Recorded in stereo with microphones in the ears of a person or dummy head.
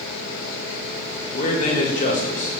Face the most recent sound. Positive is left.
turn(degrees=35)  # may be behind; listen again after turning